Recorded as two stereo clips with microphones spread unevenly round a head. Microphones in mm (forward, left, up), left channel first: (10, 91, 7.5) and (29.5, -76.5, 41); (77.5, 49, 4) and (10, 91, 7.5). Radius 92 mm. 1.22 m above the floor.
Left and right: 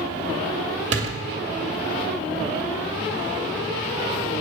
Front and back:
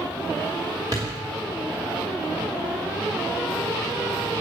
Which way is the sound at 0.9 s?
140° right.